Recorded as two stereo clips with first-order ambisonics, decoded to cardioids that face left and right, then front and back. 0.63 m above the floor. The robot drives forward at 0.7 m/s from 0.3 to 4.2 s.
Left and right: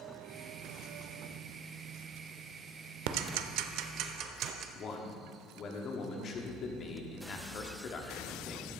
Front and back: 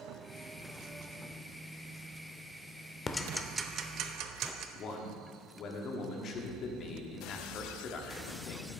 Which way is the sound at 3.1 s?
70° right.